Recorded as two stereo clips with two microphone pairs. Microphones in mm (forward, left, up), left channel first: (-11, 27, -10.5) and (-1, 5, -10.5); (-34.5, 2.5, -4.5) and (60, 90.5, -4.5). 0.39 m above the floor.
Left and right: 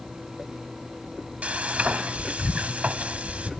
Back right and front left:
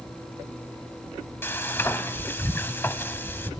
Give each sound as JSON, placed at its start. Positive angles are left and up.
{"t": 1.4, "sound": "frying", "azimuth_deg": -60, "distance_m": 1.0}